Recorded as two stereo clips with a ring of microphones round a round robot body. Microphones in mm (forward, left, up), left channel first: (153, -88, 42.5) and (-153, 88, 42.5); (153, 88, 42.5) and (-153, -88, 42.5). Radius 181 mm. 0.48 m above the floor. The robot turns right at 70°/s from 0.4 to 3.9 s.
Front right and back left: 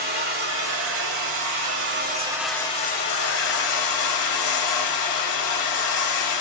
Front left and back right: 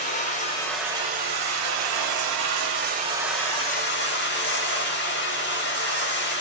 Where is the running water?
95° left, 1.0 m; by 6.4 s 20° right, 1.0 m.